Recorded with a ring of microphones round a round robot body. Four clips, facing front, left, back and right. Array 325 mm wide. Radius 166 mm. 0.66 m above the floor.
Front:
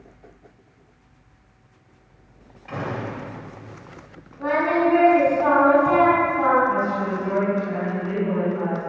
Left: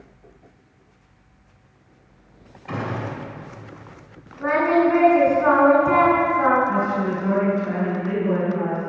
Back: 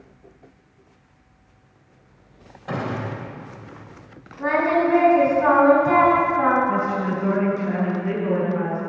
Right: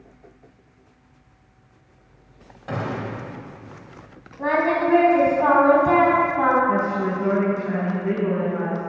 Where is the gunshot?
135° right, 4.5 m.